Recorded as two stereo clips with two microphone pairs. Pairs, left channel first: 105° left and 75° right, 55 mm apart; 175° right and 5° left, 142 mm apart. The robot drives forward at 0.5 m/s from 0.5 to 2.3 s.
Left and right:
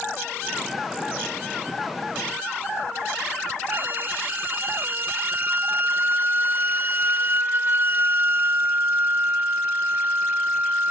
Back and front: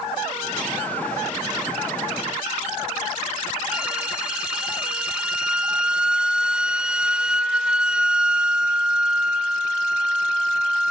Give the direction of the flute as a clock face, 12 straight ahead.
2 o'clock.